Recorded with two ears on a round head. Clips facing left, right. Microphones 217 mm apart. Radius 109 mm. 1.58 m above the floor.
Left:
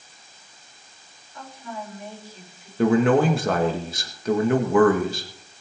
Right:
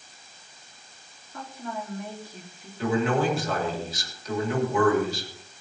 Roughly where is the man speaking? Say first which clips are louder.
Left 6 dB; left.